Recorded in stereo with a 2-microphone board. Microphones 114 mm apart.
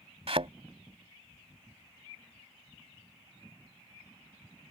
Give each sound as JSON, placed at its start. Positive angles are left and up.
{"t": 0.3, "sound": "a thud", "side_deg": -60}